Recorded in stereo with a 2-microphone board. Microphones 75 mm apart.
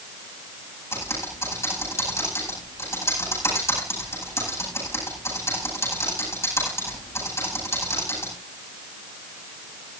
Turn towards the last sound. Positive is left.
turn(degrees=35)  # may be behind; listen again after turning